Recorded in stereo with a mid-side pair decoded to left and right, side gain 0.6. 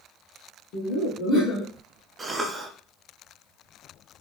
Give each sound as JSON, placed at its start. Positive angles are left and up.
{"t": 0.7, "sound": "laughter", "azimuth_deg": 70, "distance_m": 1.1}
{"t": 2.2, "sound": "a cough", "azimuth_deg": -25, "distance_m": 0.5}